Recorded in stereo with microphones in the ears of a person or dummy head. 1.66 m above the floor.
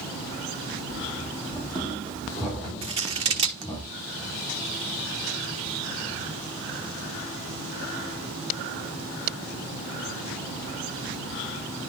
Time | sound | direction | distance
0.9 | running footsteps | 5° right (ahead or behind) | 4.5 m
2.8 | scissors | 40° right (ahead or behind) | 1.0 m